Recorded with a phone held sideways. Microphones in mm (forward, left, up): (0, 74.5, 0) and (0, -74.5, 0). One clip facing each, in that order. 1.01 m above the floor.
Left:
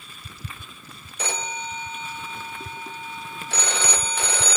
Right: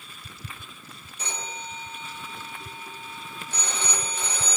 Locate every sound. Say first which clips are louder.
1.2 s a phone ringing: left 6 dB; 85° left, 0.6 m